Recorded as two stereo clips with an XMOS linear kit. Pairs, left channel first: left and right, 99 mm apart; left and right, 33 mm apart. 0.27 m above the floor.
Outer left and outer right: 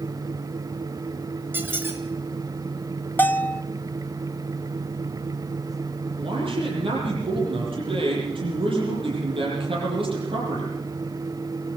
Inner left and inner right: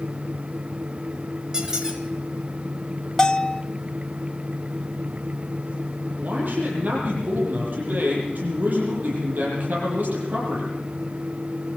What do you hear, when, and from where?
1.5 s a squeak: 20° right (ahead or behind), 3 m
3.2 s a bell: 20° left (ahead or behind), 0.9 m
6.2 s a man speaking: 60° right (ahead or behind), 9 m